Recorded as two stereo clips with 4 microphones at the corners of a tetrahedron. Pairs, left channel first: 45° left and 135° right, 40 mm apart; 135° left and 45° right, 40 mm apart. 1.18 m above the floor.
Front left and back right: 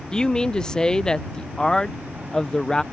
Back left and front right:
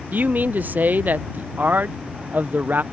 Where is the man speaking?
25° right.